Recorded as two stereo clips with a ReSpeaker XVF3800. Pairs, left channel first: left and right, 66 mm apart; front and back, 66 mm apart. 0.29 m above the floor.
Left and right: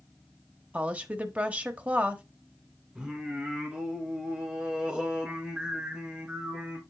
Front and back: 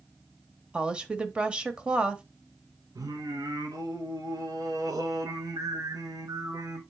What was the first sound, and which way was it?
A woman speaking, 125° right.